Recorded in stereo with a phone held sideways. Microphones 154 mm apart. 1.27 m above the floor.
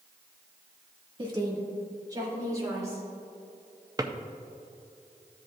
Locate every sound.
1.2 s a woman speaking: 30° right (ahead or behind), 1.8 m; by 3.0 s 20° right (ahead or behind), 4.5 m
4.0 s a drawer: 25° right (ahead or behind), 0.5 m